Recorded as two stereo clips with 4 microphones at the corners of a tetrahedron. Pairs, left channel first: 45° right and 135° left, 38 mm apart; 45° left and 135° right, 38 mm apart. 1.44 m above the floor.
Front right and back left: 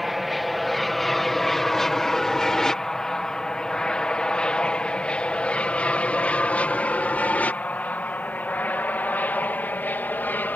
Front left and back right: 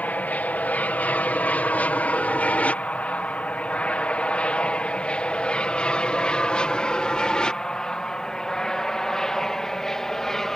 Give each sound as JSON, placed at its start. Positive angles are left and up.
{"t": 0.0, "sound": "an aircraft", "azimuth_deg": 50}